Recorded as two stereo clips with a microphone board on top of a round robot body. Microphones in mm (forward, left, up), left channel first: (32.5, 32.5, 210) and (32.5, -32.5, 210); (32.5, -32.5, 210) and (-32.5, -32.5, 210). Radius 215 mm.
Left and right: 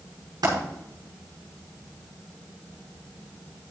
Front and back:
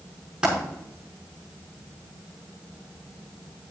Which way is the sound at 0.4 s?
105° right.